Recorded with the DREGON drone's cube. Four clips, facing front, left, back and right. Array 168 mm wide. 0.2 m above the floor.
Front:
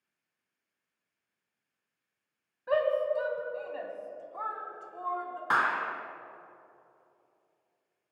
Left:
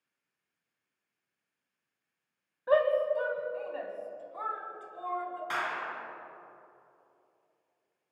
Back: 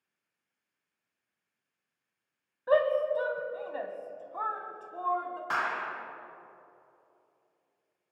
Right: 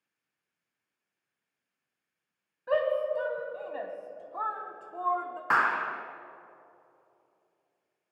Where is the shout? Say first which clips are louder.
Left 2 dB, back 2 dB; 135° left, 1.6 m; by 5.4 s 110° right, 2.5 m.